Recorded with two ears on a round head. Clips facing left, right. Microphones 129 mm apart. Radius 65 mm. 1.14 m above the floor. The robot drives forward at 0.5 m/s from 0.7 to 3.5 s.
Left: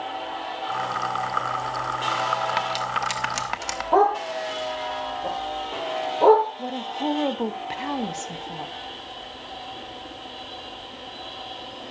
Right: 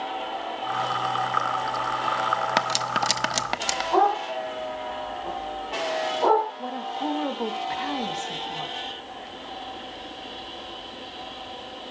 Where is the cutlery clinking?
55° right (ahead or behind), 0.5 m; by 3.8 s 35° right (ahead or behind), 0.7 m.